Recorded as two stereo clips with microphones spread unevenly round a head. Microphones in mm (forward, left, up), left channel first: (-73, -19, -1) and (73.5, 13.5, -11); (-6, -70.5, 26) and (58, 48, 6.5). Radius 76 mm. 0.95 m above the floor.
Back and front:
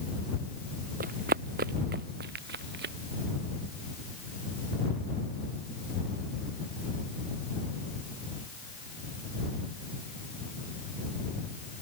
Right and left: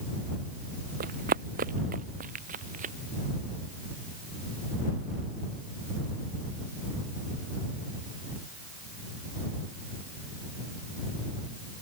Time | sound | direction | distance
1.0 | running footsteps | 45° left | ?